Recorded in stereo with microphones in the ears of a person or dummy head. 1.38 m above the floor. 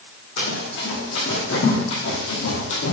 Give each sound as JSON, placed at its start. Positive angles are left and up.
{"t": 0.4, "sound": "running footsteps", "side_deg": 65, "distance_m": 4.5}